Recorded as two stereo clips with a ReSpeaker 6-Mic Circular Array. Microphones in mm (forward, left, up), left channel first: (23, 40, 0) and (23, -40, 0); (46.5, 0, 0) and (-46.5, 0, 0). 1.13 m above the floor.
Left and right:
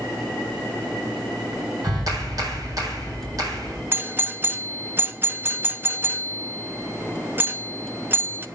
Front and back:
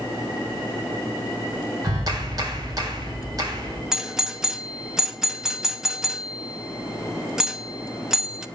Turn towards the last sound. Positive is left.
turn(degrees=-105)